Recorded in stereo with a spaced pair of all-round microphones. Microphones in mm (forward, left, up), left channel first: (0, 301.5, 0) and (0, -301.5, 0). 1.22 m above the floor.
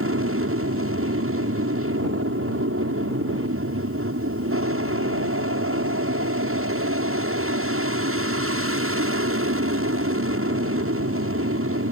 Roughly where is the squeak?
I don't hear a squeak.